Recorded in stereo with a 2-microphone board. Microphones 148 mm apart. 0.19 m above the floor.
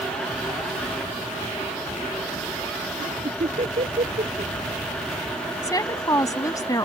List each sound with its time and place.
3.0 s laughter: 60° right (ahead or behind)
5.6 s a woman speaking: 25° left (ahead or behind)